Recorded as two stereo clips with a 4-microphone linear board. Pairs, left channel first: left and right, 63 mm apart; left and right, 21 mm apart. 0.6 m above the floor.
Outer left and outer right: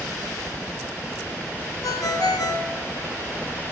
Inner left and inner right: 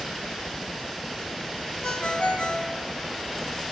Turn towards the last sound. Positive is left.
turn(degrees=60)  # may be behind; listen again after turning